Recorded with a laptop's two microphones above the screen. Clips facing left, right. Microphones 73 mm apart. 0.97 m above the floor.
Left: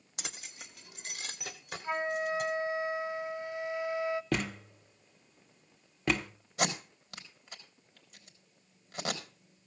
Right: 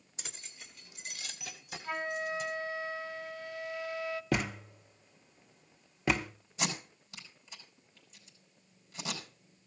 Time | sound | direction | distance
0.2 | keys jangling | 80° left | 0.9 m
1.8 | a flute | 25° left (ahead or behind) | 1.0 m
4.3 | a thud | 5° right (ahead or behind) | 0.9 m
6.6 | tape being pulled | 80° left | 4 m